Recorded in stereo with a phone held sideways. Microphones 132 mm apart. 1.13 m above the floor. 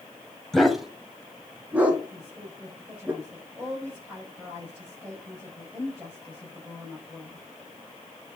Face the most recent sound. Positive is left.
turn(degrees=-5)  # may be behind; listen again after turning